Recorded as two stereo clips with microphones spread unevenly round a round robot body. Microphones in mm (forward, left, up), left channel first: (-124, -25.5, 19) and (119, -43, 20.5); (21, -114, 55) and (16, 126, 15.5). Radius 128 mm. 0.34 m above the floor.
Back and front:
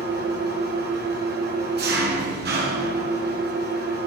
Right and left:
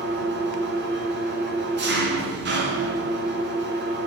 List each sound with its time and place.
0.0 s an engine running: 50° left, 2.5 m